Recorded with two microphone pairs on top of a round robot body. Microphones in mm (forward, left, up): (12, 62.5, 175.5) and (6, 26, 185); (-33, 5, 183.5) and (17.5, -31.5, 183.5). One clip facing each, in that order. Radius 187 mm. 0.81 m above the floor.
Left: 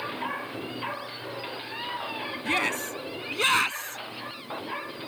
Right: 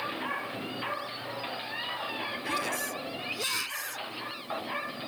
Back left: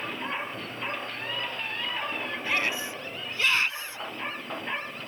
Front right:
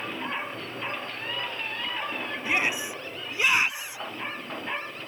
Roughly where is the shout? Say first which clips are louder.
Left 6 dB, front right 2 dB; ahead left.